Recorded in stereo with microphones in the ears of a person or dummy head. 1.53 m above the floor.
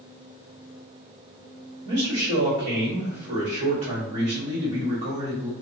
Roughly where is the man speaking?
Right.